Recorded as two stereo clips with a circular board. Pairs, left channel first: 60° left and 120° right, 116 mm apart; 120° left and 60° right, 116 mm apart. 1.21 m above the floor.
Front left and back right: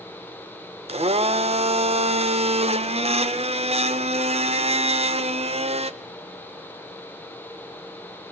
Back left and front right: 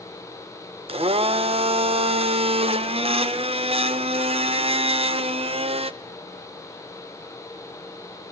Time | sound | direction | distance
0.9 | a blender | 95° right | 0.8 m